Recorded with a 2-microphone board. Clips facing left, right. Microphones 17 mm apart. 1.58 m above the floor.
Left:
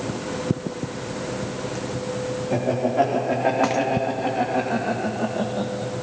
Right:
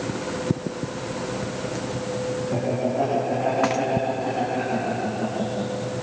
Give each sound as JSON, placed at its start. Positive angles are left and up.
{"t": 2.5, "sound": "laughter", "side_deg": 70, "distance_m": 4.5}